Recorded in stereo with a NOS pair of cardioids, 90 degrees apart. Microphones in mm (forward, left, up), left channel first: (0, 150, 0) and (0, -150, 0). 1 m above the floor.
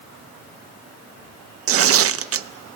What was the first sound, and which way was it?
Tearing paper, 50° right.